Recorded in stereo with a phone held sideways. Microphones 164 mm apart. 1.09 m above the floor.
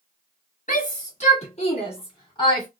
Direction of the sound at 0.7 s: 55° left (ahead or behind).